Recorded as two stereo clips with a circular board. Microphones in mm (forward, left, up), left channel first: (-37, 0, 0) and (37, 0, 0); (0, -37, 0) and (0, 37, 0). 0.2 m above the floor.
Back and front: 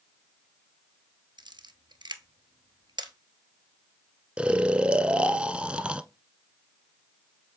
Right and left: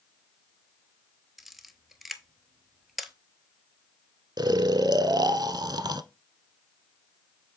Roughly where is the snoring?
Left.